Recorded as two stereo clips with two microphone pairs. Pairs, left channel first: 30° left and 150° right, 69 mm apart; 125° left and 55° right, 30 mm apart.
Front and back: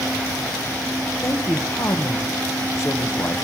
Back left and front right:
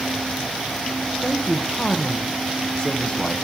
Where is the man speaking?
70° left, 0.8 m.